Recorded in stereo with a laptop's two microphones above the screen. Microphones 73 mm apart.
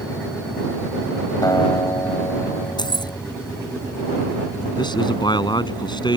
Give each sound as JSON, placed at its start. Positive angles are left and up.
{"t": 1.4, "sound": "a guitar", "side_deg": 60}
{"t": 2.8, "sound": "keys jangling", "side_deg": 80}
{"t": 4.8, "sound": "a man speaking", "side_deg": 85}